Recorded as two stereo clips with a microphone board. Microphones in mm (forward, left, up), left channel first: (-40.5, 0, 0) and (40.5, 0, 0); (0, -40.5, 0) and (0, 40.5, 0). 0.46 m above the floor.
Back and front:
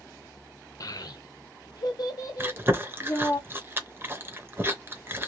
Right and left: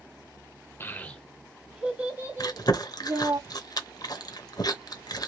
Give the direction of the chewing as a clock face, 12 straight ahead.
2 o'clock.